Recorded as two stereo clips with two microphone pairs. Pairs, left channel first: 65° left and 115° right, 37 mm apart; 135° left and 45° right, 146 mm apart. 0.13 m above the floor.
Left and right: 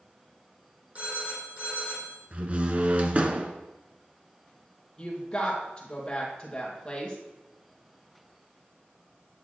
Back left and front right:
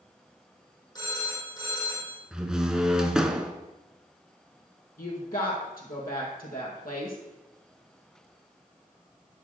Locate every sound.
0.9 s a phone ringing: 160° right, 3 m
2.3 s a door slam: 130° right, 0.9 m
5.0 s a woman speaking: 130° left, 3 m